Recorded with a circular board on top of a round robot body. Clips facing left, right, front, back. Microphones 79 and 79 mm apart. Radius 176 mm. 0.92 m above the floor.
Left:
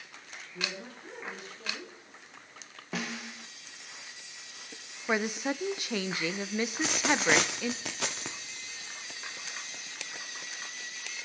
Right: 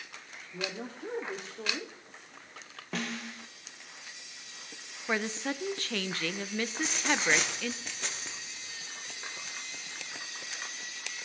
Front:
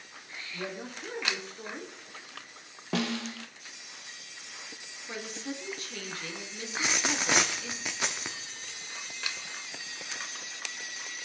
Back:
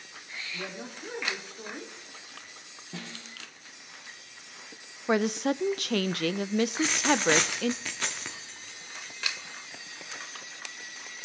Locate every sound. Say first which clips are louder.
0.5 s a woman speaking: right 2 dB, front 3 dB; 95° right, 2.5 m
2.9 s a snare drum: even, front 12 dB; 5° left, 0.8 m
5.1 s a woman speaking: left 2 dB, back 13 dB; 165° left, 0.6 m
6.7 s a dropped coin: left 2 dB, back 5 dB; 80° left, 0.5 m